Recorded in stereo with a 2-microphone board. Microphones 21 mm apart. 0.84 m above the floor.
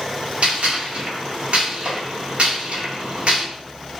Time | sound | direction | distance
0.4 | a gunshot | 60° right (ahead or behind) | 1.5 m